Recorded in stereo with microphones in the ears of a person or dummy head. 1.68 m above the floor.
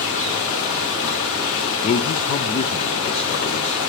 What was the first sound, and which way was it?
Running water, 80° left.